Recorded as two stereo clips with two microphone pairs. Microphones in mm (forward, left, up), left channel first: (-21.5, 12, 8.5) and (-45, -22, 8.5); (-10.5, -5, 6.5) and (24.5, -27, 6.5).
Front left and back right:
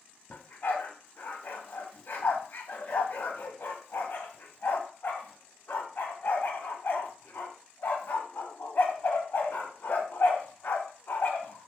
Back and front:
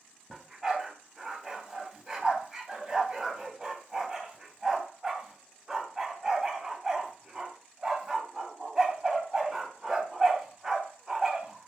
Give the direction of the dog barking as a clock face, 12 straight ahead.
11 o'clock.